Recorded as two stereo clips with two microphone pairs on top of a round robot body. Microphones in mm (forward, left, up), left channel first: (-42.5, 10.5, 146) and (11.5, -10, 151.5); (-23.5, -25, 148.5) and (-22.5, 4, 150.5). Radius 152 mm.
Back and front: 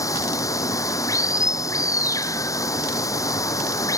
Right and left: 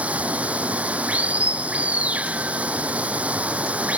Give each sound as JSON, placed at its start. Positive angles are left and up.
{"t": 0.0, "sound": "running water", "azimuth_deg": 125}